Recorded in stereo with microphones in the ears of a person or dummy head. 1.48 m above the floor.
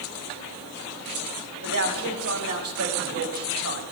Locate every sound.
1.6 s a man speaking: 80° right, 1.8 m